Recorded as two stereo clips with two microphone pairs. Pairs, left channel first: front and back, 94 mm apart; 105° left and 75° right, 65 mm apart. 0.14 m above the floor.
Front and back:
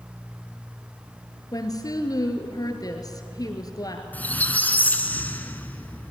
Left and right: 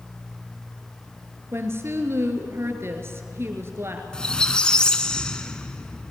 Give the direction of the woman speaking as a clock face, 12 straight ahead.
1 o'clock.